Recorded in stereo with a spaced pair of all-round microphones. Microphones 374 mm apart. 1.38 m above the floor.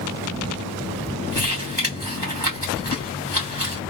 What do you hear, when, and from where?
1.3 s crumpling: 25° left (ahead or behind), 2.5 m